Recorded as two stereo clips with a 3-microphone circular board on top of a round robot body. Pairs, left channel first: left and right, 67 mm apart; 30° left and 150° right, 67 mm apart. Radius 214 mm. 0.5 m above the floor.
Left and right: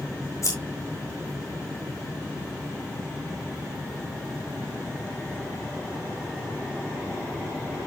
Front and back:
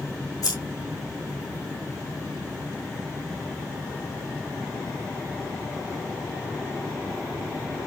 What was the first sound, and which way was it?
Scissors, 55° left.